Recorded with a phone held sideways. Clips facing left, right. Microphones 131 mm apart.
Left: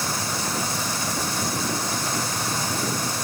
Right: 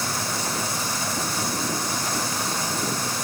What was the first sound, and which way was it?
Only background noise.